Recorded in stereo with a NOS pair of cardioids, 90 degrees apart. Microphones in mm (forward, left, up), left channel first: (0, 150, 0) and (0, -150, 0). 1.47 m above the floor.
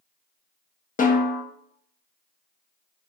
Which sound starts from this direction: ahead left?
A snare drum, at 1.0 s.